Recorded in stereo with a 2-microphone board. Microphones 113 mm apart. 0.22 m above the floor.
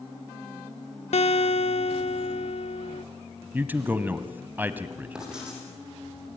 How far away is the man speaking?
About 1.3 m.